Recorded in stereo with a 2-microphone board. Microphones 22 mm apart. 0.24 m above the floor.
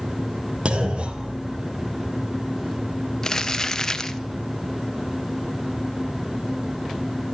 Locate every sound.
0.7 s a clunk: 60° right (ahead or behind), 3 m
3.2 s crumpling: 20° left (ahead or behind), 1.2 m